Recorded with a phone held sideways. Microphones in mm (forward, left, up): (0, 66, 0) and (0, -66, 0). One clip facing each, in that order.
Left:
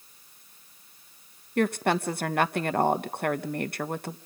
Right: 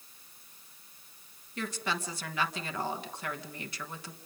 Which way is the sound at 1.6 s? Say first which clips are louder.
Left 11 dB; 55° left (ahead or behind).